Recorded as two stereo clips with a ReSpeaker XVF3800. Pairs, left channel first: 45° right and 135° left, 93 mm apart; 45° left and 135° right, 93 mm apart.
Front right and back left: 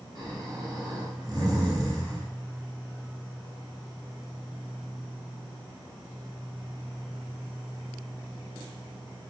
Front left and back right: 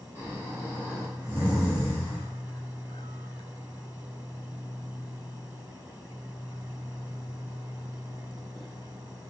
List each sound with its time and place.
0.1 s snoring: 160° left, 1.3 m